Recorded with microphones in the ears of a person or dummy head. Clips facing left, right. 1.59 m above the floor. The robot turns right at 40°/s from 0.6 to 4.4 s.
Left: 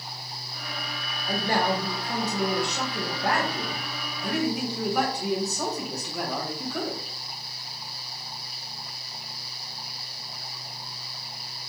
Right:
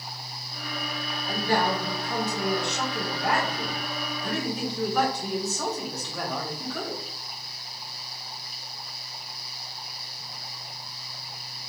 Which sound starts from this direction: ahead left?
A man speaking, at 1.3 s.